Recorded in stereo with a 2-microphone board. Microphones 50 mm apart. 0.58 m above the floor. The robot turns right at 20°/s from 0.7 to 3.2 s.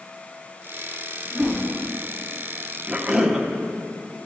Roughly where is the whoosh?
Centre.